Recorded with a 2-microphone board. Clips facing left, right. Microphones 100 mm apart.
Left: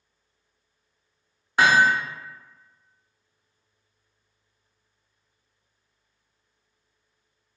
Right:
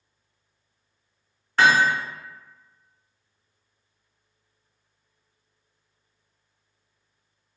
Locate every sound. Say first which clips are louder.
1.6 s hammering: even; 10° left (ahead or behind), 1.2 m